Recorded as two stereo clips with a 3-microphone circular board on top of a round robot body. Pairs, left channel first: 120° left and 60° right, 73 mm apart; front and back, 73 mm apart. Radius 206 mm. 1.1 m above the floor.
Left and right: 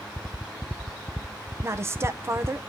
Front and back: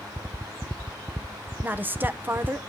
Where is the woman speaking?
115° right, 0.9 m.